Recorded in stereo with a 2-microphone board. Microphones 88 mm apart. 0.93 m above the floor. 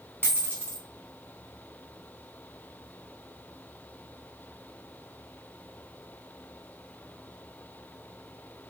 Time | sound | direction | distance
0.2 | a dropped coin | 25° right (ahead or behind) | 4.5 m